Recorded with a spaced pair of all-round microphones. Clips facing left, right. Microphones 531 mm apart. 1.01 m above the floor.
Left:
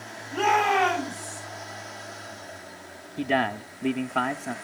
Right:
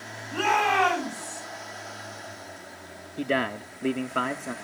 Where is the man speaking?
10° left (ahead or behind), 0.8 m.